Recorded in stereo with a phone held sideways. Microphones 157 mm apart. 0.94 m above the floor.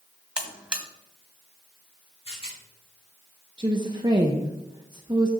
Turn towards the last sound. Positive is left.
turn(degrees=-30)  # may be behind; listen again after turning